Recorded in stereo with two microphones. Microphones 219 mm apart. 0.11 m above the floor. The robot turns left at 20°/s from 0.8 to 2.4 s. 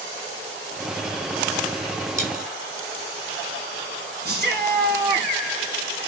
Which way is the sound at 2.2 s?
35° right (ahead or behind).